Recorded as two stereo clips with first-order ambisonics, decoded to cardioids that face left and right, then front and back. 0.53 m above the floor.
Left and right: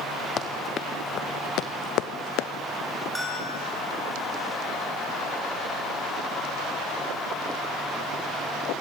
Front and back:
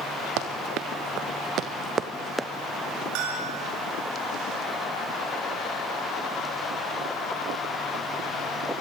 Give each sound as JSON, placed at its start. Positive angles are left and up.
{"t": 0.4, "sound": "running footsteps", "azimuth_deg": 150, "distance_m": 2.5}
{"t": 3.1, "sound": "a bell", "azimuth_deg": 175, "distance_m": 9.0}